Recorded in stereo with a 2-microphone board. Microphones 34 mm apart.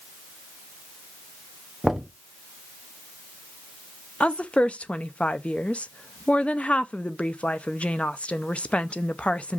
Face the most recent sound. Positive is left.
turn(degrees=40)  # may be behind; listen again after turning